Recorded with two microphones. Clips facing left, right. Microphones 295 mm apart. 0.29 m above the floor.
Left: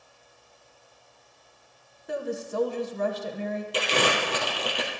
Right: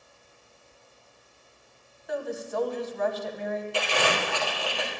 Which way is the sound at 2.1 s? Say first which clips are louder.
Left 1 dB; 35° left (ahead or behind).